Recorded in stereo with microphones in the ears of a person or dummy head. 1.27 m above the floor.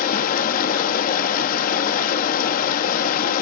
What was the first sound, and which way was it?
Running water, 50° left (ahead or behind).